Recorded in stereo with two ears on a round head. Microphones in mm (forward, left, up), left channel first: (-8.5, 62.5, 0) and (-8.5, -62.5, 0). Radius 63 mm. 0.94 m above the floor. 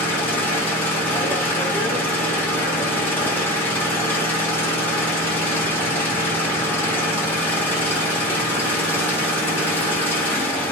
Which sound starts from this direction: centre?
An engine running, at 0.0 s.